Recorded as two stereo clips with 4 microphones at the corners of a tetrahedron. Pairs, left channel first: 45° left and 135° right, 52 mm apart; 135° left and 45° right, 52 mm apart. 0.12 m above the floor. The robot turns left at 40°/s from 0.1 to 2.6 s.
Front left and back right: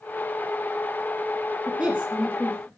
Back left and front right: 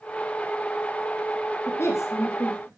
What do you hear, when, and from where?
1.7 s a woman speaking: 150° left, 3 m; by 2.7 s 115° left, 3 m